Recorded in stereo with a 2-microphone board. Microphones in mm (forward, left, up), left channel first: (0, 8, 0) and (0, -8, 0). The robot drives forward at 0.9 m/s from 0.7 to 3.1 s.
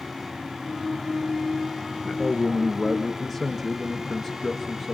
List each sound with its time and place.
2.0 s a man speaking: 15° left (ahead or behind), 1.1 m; by 4.9 s 10° left (ahead or behind), 1.9 m